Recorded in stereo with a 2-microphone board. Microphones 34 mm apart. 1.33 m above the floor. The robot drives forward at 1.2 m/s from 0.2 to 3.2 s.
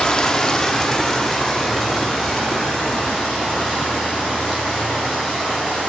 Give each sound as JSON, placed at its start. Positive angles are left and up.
{"t": 0.0, "sound": "running water", "side_deg": 20, "distance_m": 0.9}